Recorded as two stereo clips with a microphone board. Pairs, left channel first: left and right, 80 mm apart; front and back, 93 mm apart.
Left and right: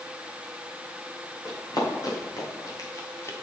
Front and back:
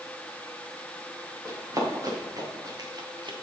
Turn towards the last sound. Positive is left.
turn(degrees=150)